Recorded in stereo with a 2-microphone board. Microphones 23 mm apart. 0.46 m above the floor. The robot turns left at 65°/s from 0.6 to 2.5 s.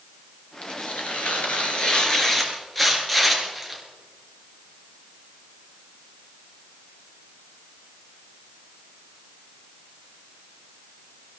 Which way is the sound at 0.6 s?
130° left.